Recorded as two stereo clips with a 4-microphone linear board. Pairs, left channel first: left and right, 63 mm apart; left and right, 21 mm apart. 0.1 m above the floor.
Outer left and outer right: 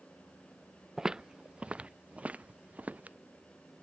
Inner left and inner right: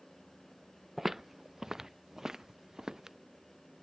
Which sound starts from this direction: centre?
Footsteps, at 1.0 s.